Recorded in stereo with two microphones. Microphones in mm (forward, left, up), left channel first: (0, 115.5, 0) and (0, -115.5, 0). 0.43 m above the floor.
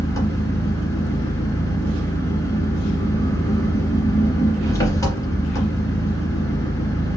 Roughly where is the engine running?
Centre.